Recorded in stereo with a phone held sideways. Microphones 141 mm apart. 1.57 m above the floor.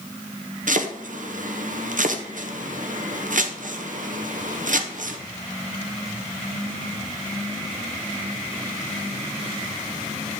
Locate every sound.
0.7 s chopping: 65° right (ahead or behind), 0.8 m